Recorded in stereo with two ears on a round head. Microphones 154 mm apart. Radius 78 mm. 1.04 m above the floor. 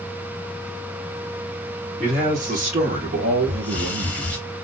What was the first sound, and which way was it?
A man speaking, 50° right (ahead or behind).